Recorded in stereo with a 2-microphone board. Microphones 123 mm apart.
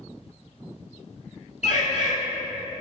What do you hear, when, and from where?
1.6 s a bird: 65° left (ahead or behind), 0.9 m